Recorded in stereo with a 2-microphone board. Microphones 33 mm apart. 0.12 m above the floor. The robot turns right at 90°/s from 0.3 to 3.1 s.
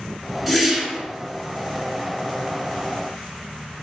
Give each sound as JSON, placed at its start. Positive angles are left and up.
{"t": 0.5, "sound": "a whoosh", "side_deg": -5, "distance_m": 0.7}